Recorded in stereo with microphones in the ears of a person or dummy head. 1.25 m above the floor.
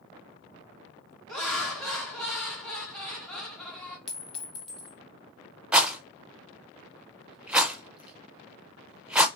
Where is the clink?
Centre (ahead or behind), 0.8 m.